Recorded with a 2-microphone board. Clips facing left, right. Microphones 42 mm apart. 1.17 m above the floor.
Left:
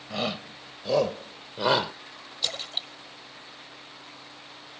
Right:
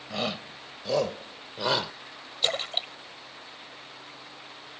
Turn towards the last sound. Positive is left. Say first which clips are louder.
# right 4 dB
turn(degrees=-35)  # may be behind; listen again after turning